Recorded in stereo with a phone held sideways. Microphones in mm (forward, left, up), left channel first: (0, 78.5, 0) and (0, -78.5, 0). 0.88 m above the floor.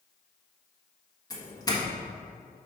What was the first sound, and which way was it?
A doorbell, 20° left (ahead or behind).